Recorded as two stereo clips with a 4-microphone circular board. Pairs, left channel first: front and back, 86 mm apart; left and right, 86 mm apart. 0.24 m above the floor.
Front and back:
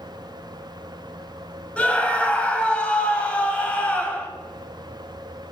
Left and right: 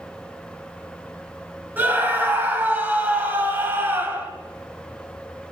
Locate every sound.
1.8 s a scream: 60° right, 1.2 m